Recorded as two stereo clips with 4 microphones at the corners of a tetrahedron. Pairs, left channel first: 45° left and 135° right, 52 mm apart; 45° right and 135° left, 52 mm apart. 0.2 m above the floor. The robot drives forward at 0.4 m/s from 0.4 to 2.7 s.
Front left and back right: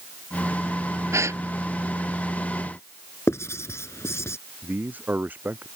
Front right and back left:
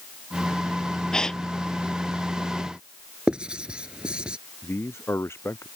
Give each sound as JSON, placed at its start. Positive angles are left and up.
{"t": 1.1, "sound": "a gasp", "azimuth_deg": -120}
{"t": 3.3, "sound": "writing", "azimuth_deg": 65}
{"t": 4.6, "sound": "a man speaking", "azimuth_deg": -80}